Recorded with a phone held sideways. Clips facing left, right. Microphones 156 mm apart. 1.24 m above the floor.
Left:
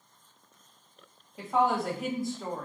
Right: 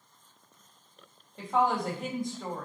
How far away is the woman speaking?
About 1.0 m.